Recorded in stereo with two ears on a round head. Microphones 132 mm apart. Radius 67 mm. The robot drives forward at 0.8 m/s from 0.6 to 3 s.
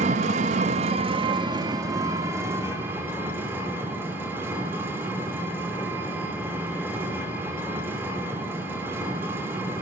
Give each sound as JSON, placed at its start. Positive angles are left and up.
{"t": 0.0, "sound": "an engine running", "side_deg": -50, "distance_m": 0.8}